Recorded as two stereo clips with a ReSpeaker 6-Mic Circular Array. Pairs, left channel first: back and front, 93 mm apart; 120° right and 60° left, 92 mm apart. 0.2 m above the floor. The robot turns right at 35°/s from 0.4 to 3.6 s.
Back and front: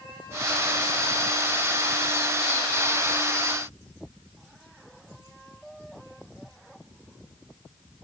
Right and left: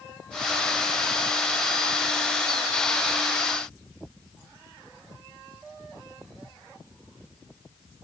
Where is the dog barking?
I don't hear a dog barking.